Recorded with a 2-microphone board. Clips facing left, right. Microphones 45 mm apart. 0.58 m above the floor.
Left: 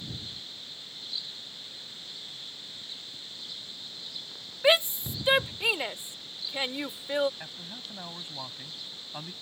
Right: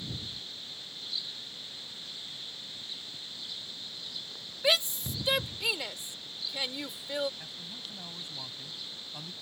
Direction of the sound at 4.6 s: 30° left (ahead or behind).